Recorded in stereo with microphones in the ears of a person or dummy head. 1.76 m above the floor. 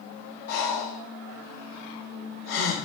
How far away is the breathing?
About 0.8 m.